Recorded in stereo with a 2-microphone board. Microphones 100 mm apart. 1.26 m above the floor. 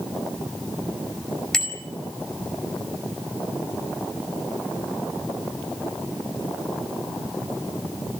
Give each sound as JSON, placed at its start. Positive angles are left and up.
{"t": 1.5, "sound": "a bicycle bell", "side_deg": 5, "distance_m": 5.0}